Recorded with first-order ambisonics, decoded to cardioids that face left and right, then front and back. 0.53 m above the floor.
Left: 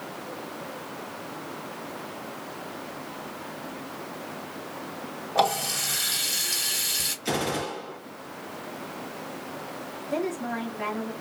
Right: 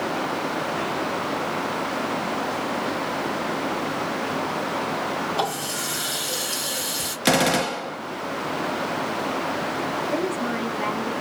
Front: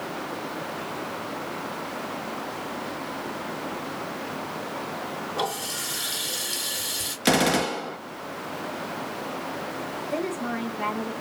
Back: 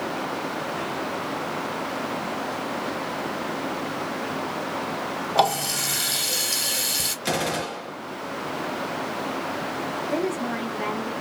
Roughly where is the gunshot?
Ahead right.